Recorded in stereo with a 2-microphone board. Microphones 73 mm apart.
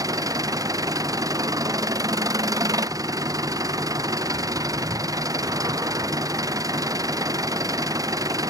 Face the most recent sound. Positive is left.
turn(degrees=-55)  # may be behind; listen again after turning